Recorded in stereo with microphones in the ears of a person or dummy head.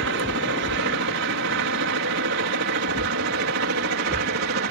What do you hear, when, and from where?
0.0 s a helicopter: 65° right (ahead or behind); by 4.7 s 60° right (ahead or behind)